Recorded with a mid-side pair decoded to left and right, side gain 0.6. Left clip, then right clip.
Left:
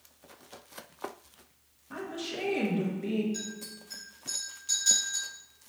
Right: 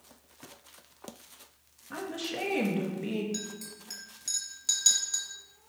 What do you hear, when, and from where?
1.9 s a woman speaking: 20° right, 1.1 m
3.3 s a clink: 50° right, 1.6 m